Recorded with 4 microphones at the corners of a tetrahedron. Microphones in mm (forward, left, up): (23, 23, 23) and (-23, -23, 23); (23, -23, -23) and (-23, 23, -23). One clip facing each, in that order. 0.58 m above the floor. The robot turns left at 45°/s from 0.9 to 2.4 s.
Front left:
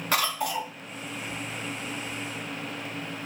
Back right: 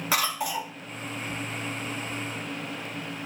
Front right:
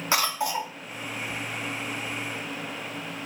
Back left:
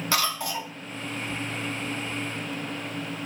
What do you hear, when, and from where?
0.1 s a cough: 55° right, 0.6 m